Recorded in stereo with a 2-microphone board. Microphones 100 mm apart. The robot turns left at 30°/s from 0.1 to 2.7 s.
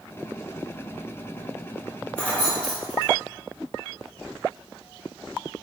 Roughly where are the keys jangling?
Centre.